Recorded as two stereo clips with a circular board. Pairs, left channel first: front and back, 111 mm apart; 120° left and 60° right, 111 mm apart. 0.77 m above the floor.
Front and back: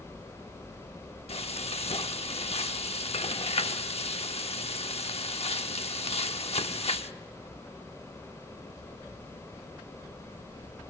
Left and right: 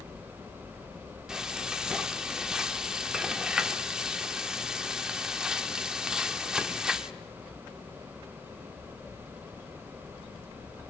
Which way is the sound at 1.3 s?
25° left.